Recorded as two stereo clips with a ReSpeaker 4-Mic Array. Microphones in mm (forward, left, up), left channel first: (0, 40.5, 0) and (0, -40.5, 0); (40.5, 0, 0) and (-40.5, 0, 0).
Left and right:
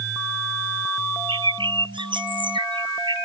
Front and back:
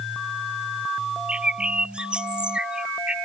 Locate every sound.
1.3 s a bird: 100° right